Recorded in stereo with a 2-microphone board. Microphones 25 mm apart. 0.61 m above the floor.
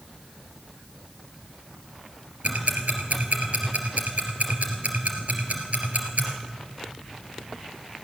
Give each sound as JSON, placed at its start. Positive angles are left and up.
{"t": 2.4, "sound": "ticking", "side_deg": -75, "distance_m": 2.5}